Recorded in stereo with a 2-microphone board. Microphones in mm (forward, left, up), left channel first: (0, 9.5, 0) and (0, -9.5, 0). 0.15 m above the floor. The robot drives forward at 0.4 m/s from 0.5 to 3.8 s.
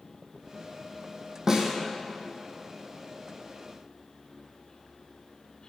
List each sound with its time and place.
1.5 s a snare drum: 30° right (ahead or behind), 2 m